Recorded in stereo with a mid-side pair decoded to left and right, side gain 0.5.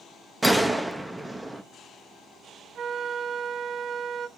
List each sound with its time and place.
0.4 s a gunshot: 5° right, 0.6 m
2.8 s a flute: 55° right, 0.5 m